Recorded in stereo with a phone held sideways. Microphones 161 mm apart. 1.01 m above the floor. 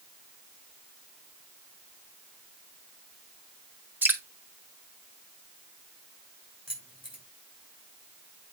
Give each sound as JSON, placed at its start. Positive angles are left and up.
{"t": 4.0, "sound": "dripping", "side_deg": -10, "distance_m": 1.2}
{"t": 6.7, "sound": "keys jangling", "side_deg": -35, "distance_m": 4.0}